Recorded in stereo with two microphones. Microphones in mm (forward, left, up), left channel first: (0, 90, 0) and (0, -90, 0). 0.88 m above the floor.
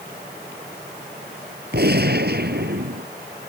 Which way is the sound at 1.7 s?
65° right (ahead or behind).